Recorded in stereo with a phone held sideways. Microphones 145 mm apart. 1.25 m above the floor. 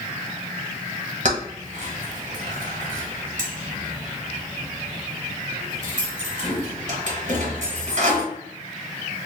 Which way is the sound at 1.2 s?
55° right (ahead or behind).